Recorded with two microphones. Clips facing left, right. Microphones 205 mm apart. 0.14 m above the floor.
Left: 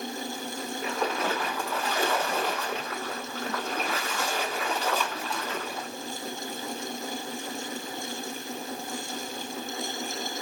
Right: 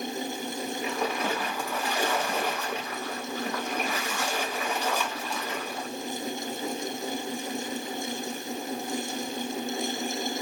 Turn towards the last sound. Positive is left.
turn(degrees=-15)  # may be behind; listen again after turning